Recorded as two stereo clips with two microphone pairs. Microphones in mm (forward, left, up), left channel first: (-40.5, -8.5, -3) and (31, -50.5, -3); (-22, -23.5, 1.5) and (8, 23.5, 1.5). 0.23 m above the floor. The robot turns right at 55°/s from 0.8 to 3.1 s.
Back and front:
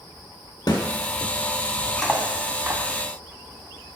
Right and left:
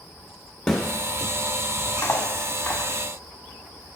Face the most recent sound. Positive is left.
turn(degrees=-60)